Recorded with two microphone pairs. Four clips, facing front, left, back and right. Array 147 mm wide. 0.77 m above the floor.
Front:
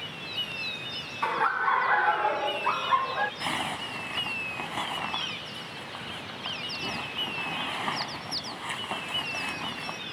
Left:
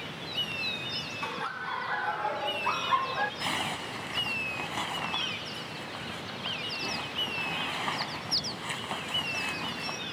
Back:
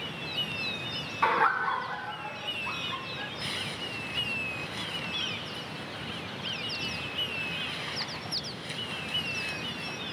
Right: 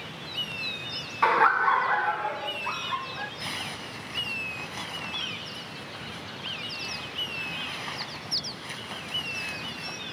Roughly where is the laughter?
Right.